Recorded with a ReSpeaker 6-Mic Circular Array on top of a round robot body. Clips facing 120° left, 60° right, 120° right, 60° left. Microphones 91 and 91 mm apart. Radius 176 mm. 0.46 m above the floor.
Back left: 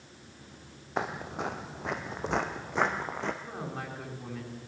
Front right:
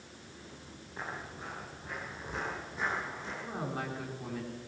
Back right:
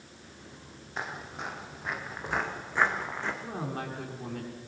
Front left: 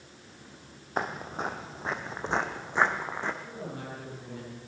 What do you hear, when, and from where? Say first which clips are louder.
1.0 s footsteps: back left 9 dB, front left 6 dB; 105° left, 1.5 m; by 3.3 s 135° left, 3 m
3.4 s a woman speaking: front right 1 dB, back right 4 dB; 145° right, 6 m